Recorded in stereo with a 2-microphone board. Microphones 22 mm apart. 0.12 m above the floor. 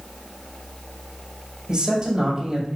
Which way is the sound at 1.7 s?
35° right (ahead or behind).